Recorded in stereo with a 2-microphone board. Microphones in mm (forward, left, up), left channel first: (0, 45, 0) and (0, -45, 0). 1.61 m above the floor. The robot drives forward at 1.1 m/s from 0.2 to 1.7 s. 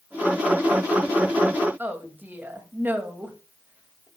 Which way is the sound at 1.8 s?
20° right (ahead or behind).